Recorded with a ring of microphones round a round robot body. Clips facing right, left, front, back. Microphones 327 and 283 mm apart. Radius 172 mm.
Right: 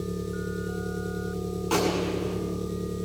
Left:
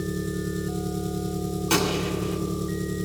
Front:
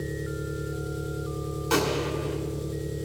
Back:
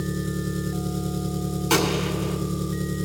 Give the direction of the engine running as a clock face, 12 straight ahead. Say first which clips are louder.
Left 3 dB, back 4 dB; 7 o'clock.